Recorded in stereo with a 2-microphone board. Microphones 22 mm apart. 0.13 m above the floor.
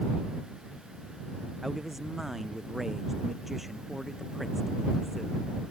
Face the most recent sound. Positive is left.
turn(degrees=-15)  # may be behind; listen again after turning